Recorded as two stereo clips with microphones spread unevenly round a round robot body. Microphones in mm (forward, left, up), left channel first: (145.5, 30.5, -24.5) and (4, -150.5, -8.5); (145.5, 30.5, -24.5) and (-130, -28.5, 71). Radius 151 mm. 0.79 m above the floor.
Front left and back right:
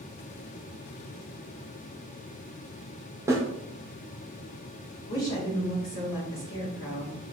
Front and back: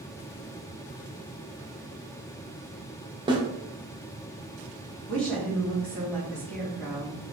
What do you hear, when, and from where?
3.3 s a snare drum: 65° right, 0.7 m
5.1 s a woman speaking: 90° left, 1.5 m